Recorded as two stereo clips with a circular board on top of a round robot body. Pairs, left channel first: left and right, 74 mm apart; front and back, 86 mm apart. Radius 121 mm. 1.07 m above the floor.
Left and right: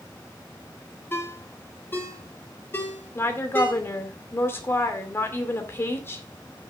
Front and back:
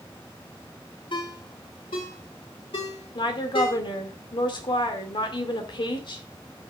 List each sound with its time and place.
1.1 s a ringtone: 25° left, 3 m
3.1 s a woman speaking: 30° left, 2 m